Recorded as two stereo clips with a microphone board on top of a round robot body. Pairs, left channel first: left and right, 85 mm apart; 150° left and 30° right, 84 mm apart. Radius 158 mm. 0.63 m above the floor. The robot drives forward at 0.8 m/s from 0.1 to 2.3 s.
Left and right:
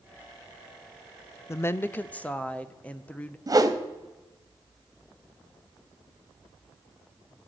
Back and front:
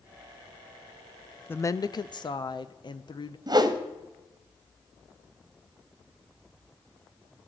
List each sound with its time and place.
1.5 s a woman speaking: 105° left, 0.5 m; by 3.4 s 165° left, 0.9 m
3.5 s a whoosh: 50° right, 1.1 m